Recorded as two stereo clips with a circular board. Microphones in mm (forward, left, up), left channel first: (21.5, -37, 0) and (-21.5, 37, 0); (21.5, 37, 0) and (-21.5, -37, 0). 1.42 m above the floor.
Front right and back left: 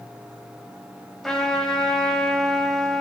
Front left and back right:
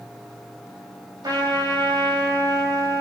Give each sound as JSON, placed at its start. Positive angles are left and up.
{"t": 1.2, "sound": "a trumpet", "azimuth_deg": -150, "distance_m": 3.5}